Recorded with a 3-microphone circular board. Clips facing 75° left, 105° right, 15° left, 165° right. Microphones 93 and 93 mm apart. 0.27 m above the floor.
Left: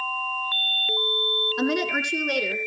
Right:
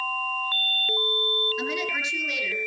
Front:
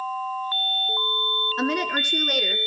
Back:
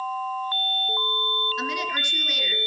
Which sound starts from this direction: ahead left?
A woman speaking, at 1.6 s.